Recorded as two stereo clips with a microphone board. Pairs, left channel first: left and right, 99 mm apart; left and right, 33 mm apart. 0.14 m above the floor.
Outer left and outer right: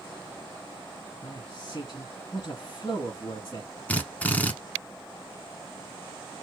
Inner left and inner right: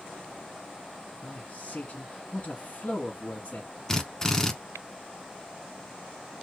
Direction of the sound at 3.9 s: 15° left (ahead or behind).